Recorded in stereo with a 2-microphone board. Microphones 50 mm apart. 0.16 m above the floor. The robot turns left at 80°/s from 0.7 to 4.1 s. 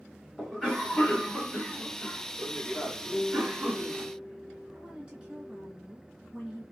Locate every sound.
0.4 s a cough: 10° left (ahead or behind), 1.3 m; by 4.1 s 15° right (ahead or behind), 1.3 m
3.1 s a piano: 145° right, 2.5 m; by 5.7 s 135° left, 2.5 m
4.7 s a woman speaking: 15° right (ahead or behind), 2 m